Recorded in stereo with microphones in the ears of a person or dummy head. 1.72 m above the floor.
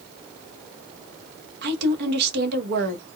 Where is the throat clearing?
No throat clearing in this recording.